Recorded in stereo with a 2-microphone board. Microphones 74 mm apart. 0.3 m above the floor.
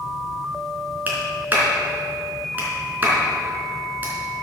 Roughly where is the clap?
Right.